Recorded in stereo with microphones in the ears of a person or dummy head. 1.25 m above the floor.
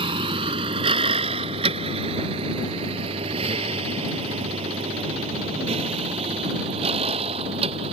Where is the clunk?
I don't hear a clunk.